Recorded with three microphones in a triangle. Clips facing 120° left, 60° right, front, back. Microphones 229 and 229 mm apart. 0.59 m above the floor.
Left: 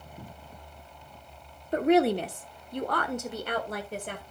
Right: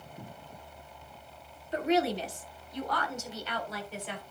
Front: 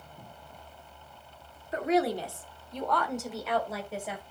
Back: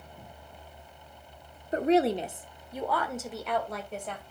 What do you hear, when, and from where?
1.7 s a woman speaking: 135° left, 1.1 m; by 4.2 s 80° left, 2.5 m